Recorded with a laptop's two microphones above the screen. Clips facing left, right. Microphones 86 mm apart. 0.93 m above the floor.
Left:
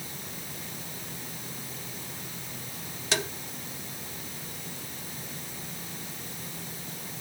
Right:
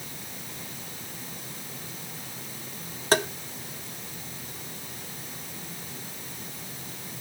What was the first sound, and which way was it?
Tapping, 45° right (ahead or behind).